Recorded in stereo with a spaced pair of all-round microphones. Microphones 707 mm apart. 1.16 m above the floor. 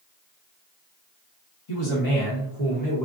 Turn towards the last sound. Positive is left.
turn(degrees=0)  # may be behind; listen again after turning